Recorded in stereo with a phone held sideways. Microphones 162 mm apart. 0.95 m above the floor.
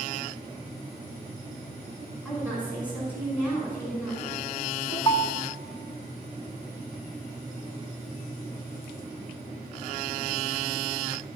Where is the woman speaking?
10° left (ahead or behind), 5 m.